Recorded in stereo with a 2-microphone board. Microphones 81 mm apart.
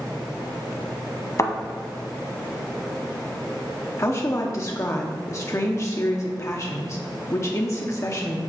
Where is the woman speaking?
40° left (ahead or behind), 0.8 m.